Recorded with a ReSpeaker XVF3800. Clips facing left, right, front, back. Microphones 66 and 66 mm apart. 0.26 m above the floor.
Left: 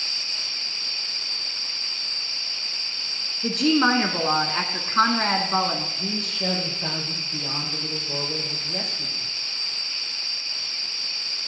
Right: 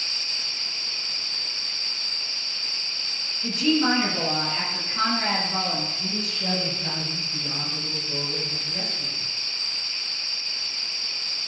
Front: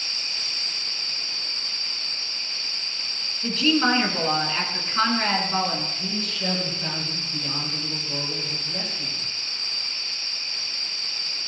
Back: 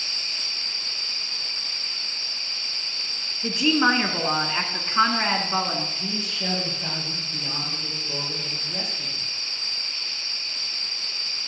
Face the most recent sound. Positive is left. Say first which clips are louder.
# left 2 dB, front 1 dB
turn(degrees=100)